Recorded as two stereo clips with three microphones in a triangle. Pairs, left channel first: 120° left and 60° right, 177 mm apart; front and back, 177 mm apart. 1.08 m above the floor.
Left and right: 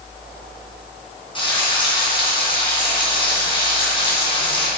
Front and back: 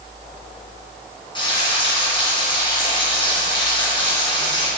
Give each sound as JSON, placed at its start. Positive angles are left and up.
{"t": 1.4, "sound": "frying", "azimuth_deg": 60, "distance_m": 2.5}